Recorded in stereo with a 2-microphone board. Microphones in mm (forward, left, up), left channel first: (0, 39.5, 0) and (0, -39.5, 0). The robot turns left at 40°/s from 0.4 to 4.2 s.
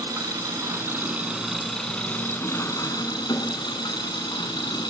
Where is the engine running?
130° right, 3 m; by 4.9 s 75° left, 3 m.